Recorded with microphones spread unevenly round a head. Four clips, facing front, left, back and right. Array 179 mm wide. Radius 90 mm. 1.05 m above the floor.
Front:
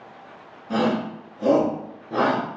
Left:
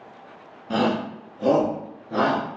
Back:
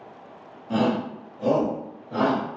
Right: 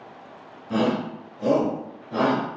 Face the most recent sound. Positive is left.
turn(degrees=30)